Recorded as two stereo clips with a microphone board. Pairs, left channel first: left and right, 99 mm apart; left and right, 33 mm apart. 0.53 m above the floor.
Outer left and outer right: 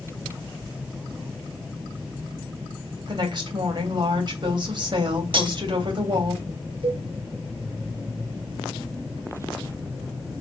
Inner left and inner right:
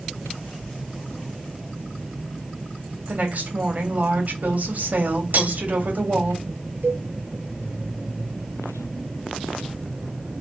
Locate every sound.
3.1 s a woman speaking: 50° right (ahead or behind), 3 m
5.3 s cutlery clinking: 55° right (ahead or behind), 1.4 m
6.8 s a cowbell: 65° right (ahead or behind), 2.5 m